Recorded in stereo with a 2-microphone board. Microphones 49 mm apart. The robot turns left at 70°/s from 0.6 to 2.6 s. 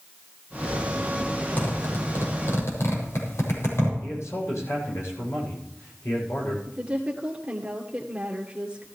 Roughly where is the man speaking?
Left.